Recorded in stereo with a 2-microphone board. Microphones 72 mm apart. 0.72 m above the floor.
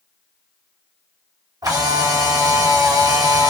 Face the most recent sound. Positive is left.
turn(degrees=-60)  # may be behind; listen again after turning